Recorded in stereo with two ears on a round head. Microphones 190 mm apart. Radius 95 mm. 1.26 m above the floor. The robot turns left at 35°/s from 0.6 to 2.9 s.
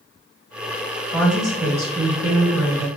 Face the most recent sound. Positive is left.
turn(degrees=-55)